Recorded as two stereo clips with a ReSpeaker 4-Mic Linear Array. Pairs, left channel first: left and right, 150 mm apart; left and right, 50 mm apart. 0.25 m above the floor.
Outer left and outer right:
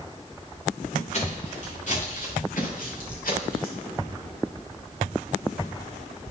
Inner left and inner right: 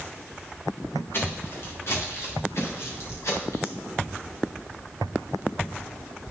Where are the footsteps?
50° left (ahead or behind), 5 m; by 3.8 s 75° left (ahead or behind), 4.5 m.